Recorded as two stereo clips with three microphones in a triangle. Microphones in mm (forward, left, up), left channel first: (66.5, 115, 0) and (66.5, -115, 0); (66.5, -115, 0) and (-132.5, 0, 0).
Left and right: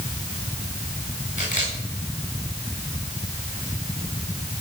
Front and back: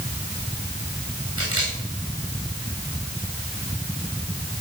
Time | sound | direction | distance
1.4 | a camera shutter | 145° left | 9.5 m